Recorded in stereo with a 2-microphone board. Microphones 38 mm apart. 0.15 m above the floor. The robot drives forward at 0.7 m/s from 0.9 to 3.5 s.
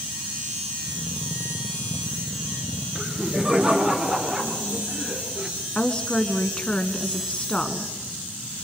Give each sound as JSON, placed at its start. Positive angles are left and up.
{"t": 3.0, "sound": "laughter", "side_deg": -20, "distance_m": 3.0}
{"t": 5.8, "sound": "a woman speaking", "side_deg": 25, "distance_m": 1.6}